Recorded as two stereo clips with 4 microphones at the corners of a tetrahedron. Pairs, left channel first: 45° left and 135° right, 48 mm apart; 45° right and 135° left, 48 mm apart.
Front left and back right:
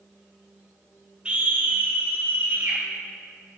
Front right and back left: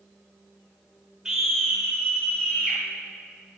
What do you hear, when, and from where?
1.2 s a scream: 170° right, 0.8 m; by 2.8 s 115° right, 1.4 m